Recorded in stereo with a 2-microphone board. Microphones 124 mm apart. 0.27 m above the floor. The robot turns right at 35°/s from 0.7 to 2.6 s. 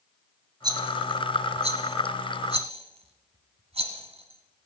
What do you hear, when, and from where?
0.6 s a rattle: 35° right (ahead or behind), 1.5 m; by 4.7 s 55° right (ahead or behind), 1.5 m